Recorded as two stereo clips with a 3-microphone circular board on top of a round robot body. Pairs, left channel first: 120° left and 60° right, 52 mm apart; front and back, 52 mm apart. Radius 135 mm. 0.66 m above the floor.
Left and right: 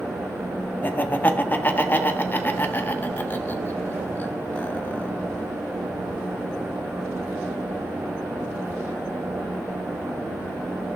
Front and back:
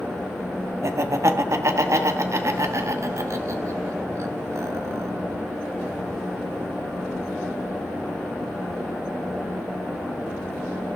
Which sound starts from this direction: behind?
Laughter, at 0.8 s.